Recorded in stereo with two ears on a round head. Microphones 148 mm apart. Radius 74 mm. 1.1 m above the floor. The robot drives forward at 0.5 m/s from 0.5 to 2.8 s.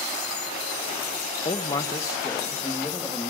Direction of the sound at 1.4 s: 30° left (ahead or behind).